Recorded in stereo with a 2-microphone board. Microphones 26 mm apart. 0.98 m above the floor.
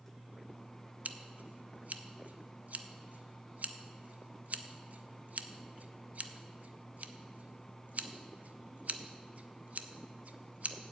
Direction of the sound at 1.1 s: 65° right (ahead or behind).